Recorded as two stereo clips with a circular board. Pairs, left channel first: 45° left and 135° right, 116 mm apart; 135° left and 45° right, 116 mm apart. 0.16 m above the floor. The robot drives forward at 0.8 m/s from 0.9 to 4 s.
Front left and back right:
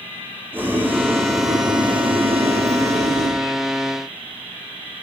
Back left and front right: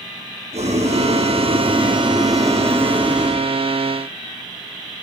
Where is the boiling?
60° right, 1.7 m; by 3.4 s 130° right, 1.9 m.